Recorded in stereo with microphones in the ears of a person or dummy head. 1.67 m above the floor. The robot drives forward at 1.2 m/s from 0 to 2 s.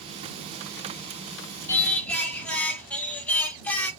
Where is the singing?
15° left (ahead or behind), 0.8 m; by 3.9 s 10° left (ahead or behind), 1.1 m.